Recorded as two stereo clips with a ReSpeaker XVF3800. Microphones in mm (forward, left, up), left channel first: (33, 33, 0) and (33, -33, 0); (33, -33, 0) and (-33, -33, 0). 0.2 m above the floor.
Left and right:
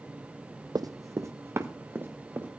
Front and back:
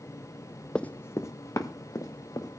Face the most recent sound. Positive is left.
turn(degrees=-30)